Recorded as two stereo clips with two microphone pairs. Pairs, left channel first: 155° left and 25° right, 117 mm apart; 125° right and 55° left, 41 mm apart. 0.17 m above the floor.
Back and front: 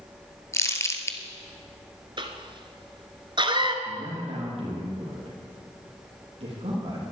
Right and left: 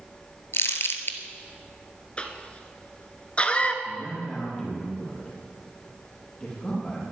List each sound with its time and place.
0.5 s crumpling: 140° right, 1.4 m
2.2 s a cough: 65° right, 1.8 m
3.9 s a man speaking: 55° right, 6 m